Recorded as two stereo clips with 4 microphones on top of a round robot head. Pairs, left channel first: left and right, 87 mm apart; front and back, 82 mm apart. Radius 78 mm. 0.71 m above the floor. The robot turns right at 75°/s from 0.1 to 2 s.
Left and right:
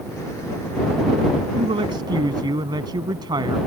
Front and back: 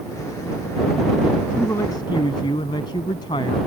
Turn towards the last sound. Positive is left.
turn(degrees=-50)